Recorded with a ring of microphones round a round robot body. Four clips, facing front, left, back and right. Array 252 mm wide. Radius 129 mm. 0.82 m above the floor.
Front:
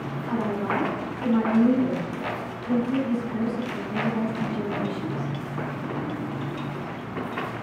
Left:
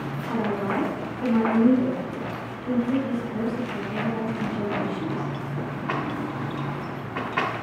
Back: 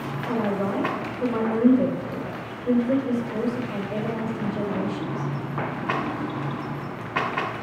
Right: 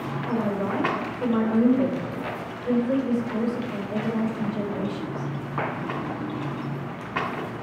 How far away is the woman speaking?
About 4 m.